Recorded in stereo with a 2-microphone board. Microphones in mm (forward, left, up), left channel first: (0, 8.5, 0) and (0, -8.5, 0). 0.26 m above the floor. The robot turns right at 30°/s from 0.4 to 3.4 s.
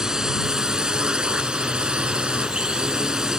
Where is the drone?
135° right; by 3.4 s 45° right.